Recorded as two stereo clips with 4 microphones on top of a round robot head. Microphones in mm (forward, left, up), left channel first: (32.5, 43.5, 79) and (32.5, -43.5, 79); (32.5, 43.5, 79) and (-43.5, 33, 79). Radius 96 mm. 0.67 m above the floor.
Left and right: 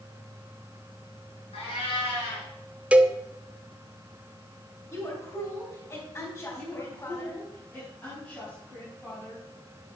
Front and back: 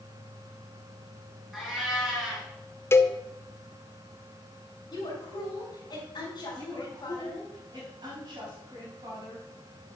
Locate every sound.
1.5 s a cat meowing: 105° left, 3.5 m
2.9 s a cowbell: 20° right, 0.9 m
4.9 s a woman speaking: 30° left, 4 m
6.5 s a woman speaking: 165° left, 5 m